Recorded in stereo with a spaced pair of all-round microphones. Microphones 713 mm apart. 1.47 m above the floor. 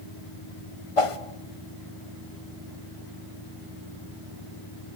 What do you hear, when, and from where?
1.0 s a whoosh: 50° left (ahead or behind), 1.1 m